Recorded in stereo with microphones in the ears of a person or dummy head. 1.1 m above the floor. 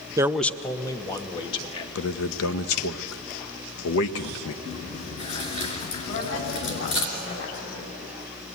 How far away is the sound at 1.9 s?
About 1.0 m.